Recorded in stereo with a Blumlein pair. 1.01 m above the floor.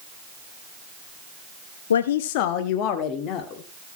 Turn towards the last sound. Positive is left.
turn(degrees=30)